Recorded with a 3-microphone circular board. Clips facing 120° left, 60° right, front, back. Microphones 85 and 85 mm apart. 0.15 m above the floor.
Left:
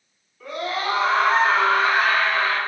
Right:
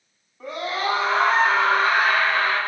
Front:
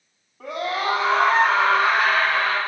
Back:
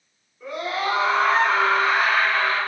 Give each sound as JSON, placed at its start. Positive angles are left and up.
{"t": 0.4, "sound": "a scream", "azimuth_deg": -10, "distance_m": 4.0}